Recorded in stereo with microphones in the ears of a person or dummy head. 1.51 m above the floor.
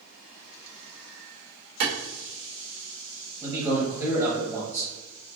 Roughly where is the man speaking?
Centre.